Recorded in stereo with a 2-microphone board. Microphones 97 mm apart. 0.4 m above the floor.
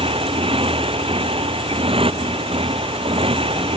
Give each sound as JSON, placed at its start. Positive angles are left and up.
{"t": 0.0, "sound": "a motorcycle", "side_deg": -85}